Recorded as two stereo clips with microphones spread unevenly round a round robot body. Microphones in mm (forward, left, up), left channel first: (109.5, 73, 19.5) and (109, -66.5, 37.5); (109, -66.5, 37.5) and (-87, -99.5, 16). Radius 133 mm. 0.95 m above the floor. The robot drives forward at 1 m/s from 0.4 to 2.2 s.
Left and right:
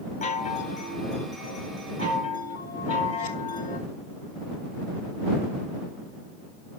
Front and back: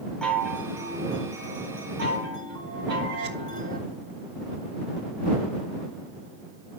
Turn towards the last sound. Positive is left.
turn(degrees=150)